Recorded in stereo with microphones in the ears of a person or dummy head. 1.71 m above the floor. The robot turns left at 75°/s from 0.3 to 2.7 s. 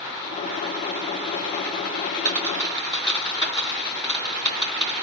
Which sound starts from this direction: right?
A dropped coin, at 2.2 s.